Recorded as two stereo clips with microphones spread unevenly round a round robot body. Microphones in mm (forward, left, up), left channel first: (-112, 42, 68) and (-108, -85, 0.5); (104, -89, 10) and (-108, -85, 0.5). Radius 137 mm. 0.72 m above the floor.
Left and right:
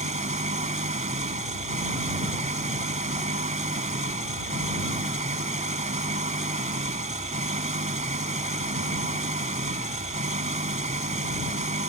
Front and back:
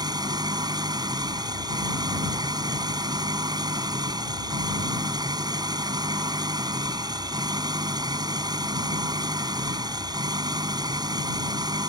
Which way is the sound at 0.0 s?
110° right.